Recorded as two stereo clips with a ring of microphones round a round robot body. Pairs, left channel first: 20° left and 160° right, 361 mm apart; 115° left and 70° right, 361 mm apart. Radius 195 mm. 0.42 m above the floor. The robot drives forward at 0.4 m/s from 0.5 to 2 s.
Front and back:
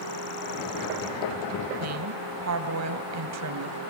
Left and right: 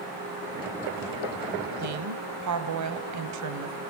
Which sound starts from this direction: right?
A woman speaking, at 1.8 s.